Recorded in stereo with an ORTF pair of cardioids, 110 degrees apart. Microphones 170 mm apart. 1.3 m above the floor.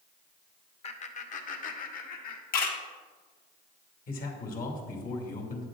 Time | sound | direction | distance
0.8 | laughter | 40° left | 1.3 m
2.5 | a camera shutter | 60° left | 1.9 m
4.1 | a man speaking | 55° left | 2.5 m